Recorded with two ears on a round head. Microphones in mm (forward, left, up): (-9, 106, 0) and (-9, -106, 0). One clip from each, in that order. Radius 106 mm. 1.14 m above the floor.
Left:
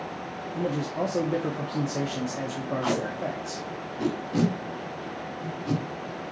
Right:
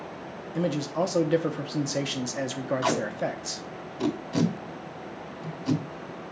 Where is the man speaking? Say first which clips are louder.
Right 2 dB; 50° right (ahead or behind), 1.0 m.